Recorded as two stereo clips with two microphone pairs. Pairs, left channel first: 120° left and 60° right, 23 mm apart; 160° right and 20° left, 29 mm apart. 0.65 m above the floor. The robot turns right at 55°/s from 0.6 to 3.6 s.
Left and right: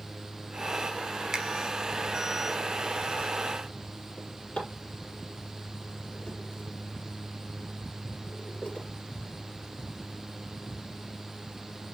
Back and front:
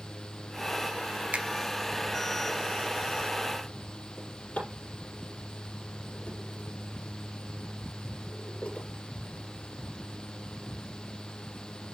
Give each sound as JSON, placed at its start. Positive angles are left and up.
{"t": 1.3, "sound": "a finger snap", "azimuth_deg": 0, "distance_m": 0.8}
{"t": 4.2, "sound": "a drawer", "azimuth_deg": 160, "distance_m": 5.5}